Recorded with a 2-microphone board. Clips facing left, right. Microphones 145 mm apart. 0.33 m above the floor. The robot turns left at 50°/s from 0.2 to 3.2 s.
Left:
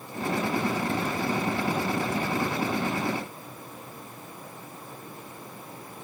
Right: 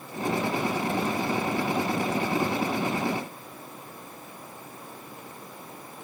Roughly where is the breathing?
No breathing in this recording.